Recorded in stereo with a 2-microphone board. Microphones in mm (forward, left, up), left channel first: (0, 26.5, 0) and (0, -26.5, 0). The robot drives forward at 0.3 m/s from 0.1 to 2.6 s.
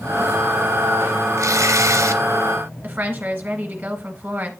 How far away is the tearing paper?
About 0.6 m.